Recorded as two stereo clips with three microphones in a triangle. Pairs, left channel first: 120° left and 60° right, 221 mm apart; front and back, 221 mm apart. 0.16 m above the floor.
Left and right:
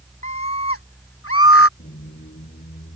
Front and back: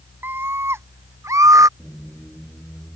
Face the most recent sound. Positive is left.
turn(degrees=85)